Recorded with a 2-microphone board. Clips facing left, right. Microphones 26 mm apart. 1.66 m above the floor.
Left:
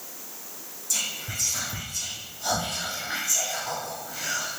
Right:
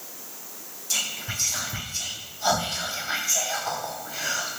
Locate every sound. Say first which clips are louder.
0.9 s whispering: right 2 dB; 45° right (ahead or behind), 0.6 m